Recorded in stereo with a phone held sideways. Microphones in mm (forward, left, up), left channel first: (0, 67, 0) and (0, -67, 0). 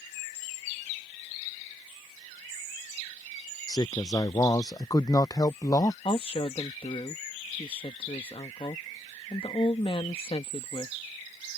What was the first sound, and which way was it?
A man speaking, 30° left (ahead or behind).